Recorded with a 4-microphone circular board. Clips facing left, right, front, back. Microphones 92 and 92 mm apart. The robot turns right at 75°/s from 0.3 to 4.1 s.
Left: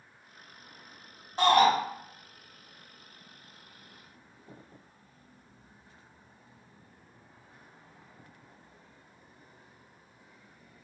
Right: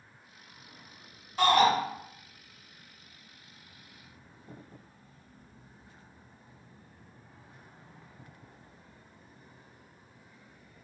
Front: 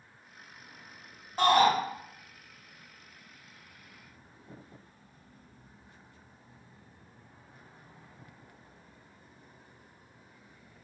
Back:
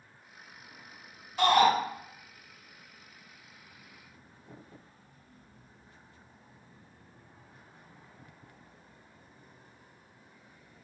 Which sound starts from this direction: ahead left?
A shout, at 1.4 s.